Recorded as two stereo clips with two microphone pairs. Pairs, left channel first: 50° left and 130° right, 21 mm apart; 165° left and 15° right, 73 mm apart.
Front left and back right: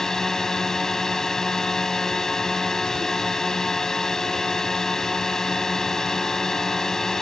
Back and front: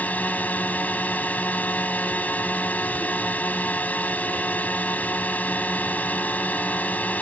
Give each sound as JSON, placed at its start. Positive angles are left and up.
{"t": 0.0, "sound": "a drone", "azimuth_deg": 110}